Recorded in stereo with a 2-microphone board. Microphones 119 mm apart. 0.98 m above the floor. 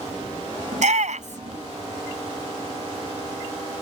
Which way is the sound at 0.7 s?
85° right.